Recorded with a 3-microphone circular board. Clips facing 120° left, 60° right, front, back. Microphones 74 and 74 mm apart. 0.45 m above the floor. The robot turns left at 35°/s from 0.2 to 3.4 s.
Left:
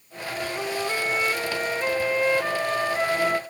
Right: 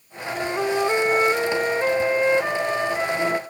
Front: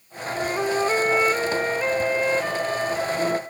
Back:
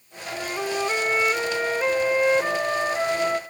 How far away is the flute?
About 1.0 m.